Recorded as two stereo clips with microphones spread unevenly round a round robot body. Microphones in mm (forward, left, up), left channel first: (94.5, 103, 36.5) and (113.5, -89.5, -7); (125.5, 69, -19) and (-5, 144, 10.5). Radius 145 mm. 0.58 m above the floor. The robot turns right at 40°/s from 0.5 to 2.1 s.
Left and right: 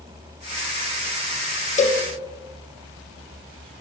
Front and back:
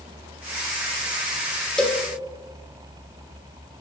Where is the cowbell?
40° left, 0.7 m; by 2.0 s 50° left, 0.7 m.